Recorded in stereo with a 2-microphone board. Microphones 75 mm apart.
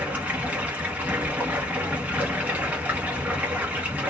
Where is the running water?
20° right (ahead or behind), 1.1 m.